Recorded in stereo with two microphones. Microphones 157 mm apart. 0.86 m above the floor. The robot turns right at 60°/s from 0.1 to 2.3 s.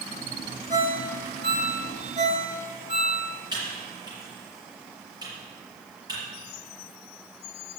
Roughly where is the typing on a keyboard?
Right.